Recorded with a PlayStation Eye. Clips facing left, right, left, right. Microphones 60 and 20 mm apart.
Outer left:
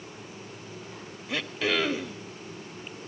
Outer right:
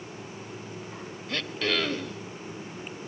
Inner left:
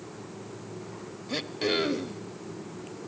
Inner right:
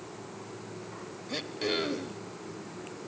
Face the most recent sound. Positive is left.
turn(degrees=10)  # may be behind; listen again after turning